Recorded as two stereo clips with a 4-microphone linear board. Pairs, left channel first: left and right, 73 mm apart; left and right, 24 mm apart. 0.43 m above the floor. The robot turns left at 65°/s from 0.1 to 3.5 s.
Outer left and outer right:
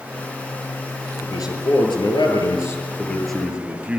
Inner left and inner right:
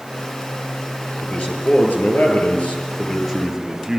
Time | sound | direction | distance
1.2 | a man speaking | 135° left | 7 m